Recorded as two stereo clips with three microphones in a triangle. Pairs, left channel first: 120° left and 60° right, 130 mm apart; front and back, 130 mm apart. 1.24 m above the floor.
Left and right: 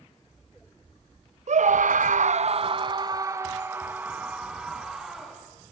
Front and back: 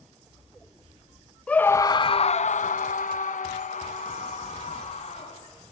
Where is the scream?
80° right, 0.8 m; by 5.5 s 25° left, 2.5 m.